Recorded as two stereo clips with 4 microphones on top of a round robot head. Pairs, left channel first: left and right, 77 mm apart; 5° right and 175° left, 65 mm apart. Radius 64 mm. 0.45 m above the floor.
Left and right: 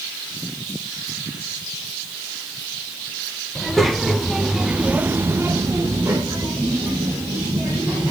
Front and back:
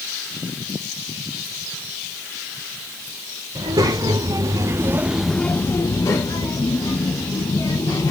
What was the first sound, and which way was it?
A child speaking, 175° left.